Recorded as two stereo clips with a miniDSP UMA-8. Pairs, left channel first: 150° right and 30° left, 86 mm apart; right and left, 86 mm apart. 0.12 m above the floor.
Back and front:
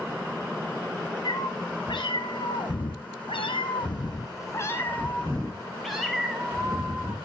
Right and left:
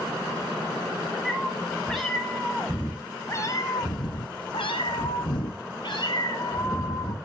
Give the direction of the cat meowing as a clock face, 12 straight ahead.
6 o'clock.